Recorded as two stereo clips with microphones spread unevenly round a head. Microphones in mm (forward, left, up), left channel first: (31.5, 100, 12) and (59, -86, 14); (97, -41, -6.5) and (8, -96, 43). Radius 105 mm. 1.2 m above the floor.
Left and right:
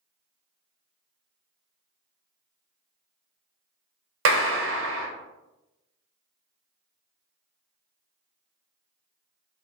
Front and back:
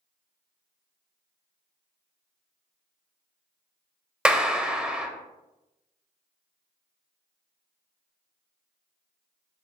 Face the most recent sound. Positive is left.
turn(degrees=-70)